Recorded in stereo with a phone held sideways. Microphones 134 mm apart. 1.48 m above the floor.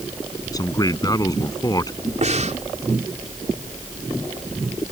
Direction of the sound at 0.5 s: 25° left (ahead or behind).